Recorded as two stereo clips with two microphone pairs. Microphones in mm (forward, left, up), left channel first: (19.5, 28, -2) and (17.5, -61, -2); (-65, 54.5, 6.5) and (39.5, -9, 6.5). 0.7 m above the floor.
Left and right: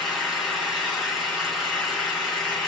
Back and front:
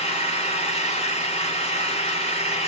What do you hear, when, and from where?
0.0 s an engine running: straight behind, 3.5 m